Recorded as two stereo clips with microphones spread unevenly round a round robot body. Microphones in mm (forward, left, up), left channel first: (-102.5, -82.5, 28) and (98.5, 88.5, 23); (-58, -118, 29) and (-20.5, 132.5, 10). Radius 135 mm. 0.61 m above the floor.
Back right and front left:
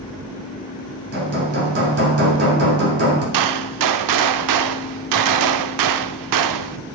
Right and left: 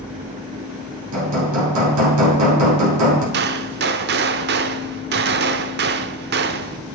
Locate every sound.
1.1 s hammering: 90° left, 5.5 m
3.3 s a gunshot: 30° left, 0.7 m